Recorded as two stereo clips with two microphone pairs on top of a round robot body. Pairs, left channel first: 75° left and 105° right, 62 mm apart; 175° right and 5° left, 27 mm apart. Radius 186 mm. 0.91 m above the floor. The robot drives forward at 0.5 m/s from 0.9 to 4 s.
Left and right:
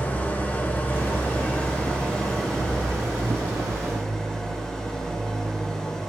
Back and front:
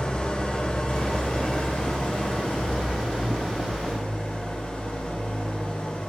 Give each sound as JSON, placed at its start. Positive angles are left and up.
{"t": 0.0, "sound": "an engine running", "azimuth_deg": 135, "distance_m": 1.6}